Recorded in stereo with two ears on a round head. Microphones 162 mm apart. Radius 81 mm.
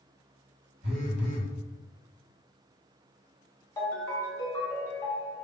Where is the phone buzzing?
65° right (ahead or behind), 1.7 m.